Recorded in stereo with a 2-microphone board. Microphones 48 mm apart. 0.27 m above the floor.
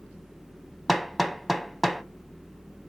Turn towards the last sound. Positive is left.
turn(degrees=0)  # may be behind; listen again after turning